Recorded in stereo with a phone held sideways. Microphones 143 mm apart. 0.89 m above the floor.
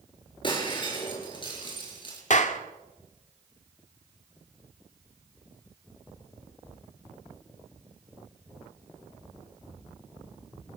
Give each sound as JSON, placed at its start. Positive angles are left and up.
{"t": 0.4, "sound": "breaking glass", "side_deg": 35, "distance_m": 7.5}
{"t": 2.3, "sound": "a clap", "side_deg": 55, "distance_m": 1.7}